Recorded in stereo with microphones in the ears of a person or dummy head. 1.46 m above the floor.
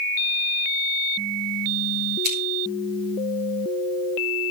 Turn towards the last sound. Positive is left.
turn(degrees=-55)  # may be behind; listen again after turning